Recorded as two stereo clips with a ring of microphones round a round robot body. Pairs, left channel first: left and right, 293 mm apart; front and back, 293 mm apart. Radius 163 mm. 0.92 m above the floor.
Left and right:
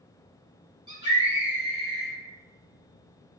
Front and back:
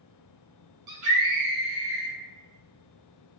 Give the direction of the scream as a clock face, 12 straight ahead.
5 o'clock.